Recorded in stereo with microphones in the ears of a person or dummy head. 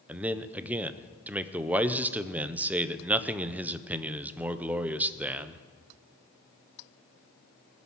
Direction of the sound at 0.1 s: 10° right (ahead or behind).